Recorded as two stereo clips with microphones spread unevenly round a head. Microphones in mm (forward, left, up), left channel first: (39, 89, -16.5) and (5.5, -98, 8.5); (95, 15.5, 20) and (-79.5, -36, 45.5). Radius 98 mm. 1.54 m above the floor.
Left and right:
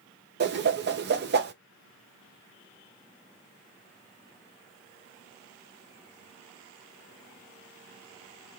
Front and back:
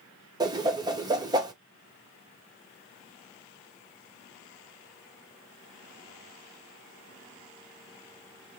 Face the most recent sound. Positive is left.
turn(degrees=-100)